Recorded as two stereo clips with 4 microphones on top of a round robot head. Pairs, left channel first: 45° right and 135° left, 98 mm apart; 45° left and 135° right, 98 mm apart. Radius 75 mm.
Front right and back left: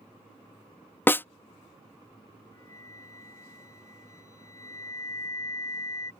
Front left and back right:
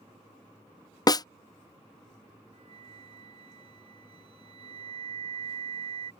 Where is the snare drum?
15° left.